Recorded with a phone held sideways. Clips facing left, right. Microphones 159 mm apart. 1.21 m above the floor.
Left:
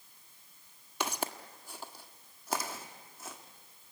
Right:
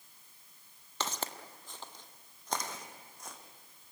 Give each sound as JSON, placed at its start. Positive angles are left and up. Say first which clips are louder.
{"t": 1.0, "sound": "footsteps", "louder": "left 3 dB", "side_deg": 10, "distance_m": 1.3}